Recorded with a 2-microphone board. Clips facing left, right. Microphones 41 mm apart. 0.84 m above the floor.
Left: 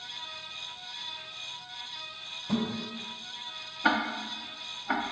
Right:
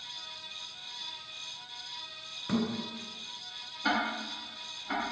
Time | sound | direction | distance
2.5 | a thud | 65° right (ahead or behind) | 1.6 m
3.8 | ticking | 35° left (ahead or behind) | 0.5 m